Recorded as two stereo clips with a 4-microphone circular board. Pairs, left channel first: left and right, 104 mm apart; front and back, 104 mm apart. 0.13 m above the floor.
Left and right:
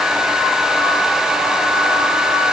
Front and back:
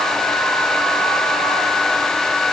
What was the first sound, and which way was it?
Only background noise.